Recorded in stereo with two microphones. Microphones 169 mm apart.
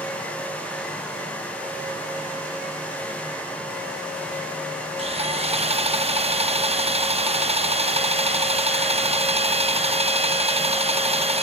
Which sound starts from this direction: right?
Sawing, at 5.0 s.